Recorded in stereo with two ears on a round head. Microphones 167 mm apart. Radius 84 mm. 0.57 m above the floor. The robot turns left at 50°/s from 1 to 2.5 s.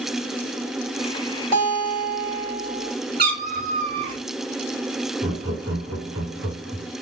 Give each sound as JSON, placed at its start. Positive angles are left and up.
{"t": 1.5, "sound": "a guitar", "azimuth_deg": -45, "distance_m": 3.0}
{"t": 3.2, "sound": "a cat meowing", "side_deg": -55, "distance_m": 1.5}
{"t": 5.2, "sound": "laughter", "side_deg": -70, "distance_m": 2.0}